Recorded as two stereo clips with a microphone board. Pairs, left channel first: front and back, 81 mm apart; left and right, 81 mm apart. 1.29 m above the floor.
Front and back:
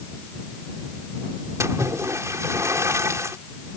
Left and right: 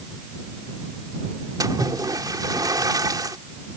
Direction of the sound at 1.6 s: 130° right.